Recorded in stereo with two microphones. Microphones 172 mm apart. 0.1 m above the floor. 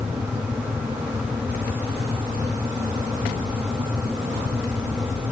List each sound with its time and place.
Only background noise.